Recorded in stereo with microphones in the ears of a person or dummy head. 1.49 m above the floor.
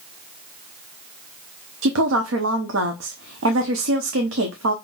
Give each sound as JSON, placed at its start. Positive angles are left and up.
{"t": 1.8, "sound": "a woman speaking", "side_deg": -75, "distance_m": 0.7}